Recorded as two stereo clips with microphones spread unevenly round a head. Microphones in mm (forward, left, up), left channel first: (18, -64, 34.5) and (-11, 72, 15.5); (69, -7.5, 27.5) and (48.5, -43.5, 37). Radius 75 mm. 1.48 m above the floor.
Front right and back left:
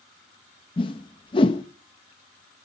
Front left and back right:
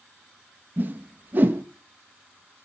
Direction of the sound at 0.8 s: 120° right.